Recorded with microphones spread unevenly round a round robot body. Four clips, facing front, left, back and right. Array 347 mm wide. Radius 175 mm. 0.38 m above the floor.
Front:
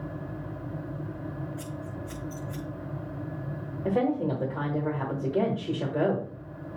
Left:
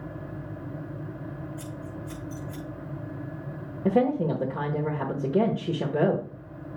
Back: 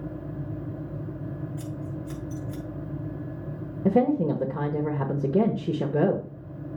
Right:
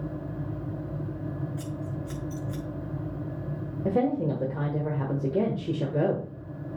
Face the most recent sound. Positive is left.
turn(degrees=175)